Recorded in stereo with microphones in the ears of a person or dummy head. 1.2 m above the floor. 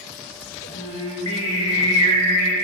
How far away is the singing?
About 1.7 m.